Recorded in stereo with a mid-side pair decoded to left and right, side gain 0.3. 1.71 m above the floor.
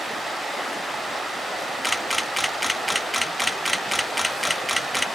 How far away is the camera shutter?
About 2.5 m.